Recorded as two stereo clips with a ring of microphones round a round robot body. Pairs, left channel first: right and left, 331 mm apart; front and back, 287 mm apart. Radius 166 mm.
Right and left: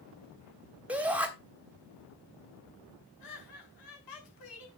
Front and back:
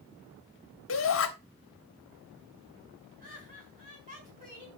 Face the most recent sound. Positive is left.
turn(degrees=-115)